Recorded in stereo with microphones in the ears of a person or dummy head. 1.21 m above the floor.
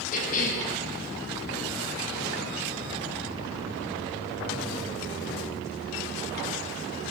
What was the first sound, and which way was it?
A cough, 40° left (ahead or behind).